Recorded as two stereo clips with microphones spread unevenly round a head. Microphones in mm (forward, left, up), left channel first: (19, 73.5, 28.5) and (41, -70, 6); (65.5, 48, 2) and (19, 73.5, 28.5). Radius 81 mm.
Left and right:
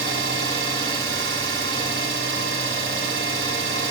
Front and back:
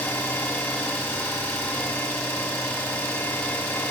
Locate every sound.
0.0 s an engine running: 110° right, 2.5 m